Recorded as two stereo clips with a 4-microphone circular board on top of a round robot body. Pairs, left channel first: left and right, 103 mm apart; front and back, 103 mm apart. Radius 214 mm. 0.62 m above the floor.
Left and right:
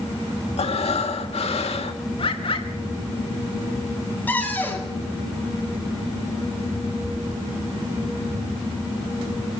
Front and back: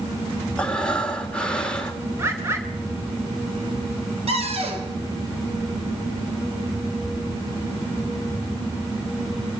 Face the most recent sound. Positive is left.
turn(degrees=165)